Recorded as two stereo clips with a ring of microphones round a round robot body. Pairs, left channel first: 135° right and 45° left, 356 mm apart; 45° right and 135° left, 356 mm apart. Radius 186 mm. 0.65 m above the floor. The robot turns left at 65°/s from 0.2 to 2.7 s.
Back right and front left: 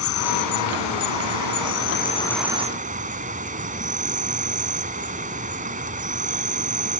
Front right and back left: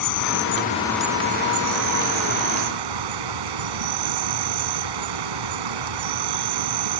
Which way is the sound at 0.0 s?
85° right.